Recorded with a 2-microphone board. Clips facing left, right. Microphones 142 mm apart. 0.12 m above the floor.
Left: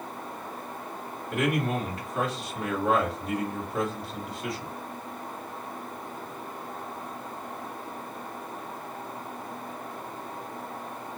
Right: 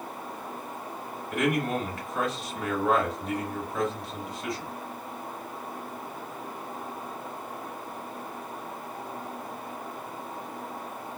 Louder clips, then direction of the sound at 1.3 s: Even; 35° left (ahead or behind).